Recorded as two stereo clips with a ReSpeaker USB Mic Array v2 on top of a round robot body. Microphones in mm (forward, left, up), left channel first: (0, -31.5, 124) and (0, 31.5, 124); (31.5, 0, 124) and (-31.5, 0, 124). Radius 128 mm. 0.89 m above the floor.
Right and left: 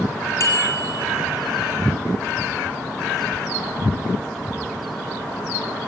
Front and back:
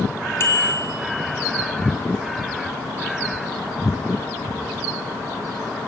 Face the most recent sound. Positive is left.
turn(degrees=-50)